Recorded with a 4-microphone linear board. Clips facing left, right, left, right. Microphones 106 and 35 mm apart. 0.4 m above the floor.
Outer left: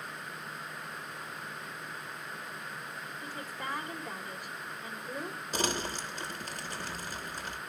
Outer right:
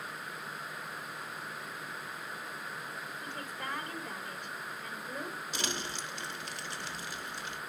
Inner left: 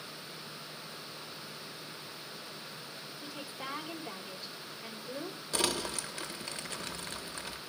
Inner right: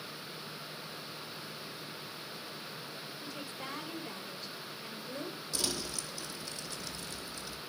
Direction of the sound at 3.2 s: 10° left (ahead or behind).